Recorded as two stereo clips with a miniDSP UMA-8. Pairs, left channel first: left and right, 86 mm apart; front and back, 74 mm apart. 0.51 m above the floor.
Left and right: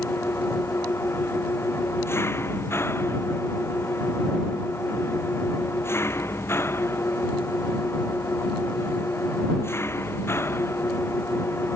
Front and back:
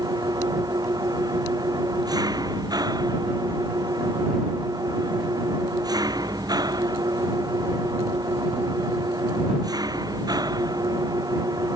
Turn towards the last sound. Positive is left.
turn(degrees=150)